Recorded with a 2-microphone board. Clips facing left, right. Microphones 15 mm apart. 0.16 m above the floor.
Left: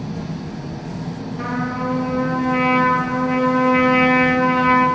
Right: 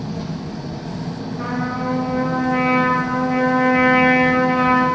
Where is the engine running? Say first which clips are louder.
Right 1 dB; 50° right (ahead or behind), 1.7 m.